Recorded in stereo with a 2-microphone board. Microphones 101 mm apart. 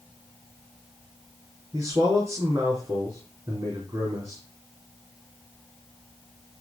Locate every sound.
1.7 s a man speaking: 35° right (ahead or behind), 4 m